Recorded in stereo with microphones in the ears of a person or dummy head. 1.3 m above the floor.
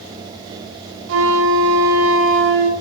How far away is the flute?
About 4 m.